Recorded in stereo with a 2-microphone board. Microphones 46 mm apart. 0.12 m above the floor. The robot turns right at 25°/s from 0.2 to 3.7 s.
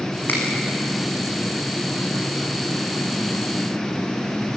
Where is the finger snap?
45° left (ahead or behind), 6 m; by 0.4 s 40° left (ahead or behind), 6 m.